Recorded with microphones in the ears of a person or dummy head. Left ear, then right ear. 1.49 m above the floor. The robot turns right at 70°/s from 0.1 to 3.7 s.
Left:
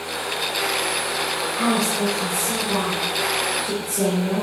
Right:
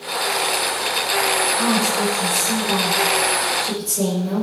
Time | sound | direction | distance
1.6 | a woman speaking | 175° left | 6.5 m